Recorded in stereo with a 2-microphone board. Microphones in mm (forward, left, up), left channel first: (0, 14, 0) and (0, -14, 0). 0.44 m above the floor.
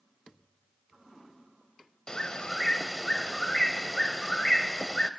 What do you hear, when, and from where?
2.1 s a bird: 30° left (ahead or behind), 0.8 m